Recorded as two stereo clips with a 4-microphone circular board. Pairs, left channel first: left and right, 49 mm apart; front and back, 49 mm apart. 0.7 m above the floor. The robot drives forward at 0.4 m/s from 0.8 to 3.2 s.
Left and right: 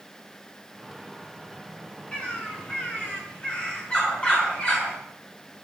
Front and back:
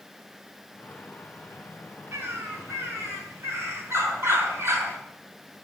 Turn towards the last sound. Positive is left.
turn(degrees=160)